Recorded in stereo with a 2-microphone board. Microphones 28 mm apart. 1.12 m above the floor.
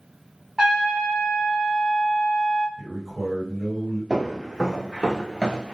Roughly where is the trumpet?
Right.